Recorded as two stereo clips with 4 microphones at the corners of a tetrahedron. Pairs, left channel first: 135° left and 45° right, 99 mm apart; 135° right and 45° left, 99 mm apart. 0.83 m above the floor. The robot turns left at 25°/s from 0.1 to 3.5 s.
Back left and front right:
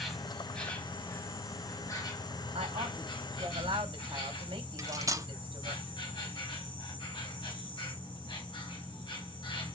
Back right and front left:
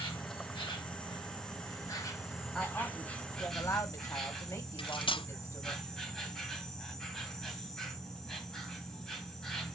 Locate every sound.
0.0 s an insect: 135° right, 2.5 m; by 9.8 s 140° left, 2.5 m
2.5 s a woman speaking: 50° right, 2.5 m; by 5.8 s 75° right, 2.5 m
4.8 s cutlery clinking: 100° right, 0.5 m